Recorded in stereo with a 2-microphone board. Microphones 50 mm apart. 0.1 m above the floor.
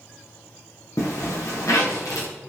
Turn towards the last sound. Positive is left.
turn(degrees=85)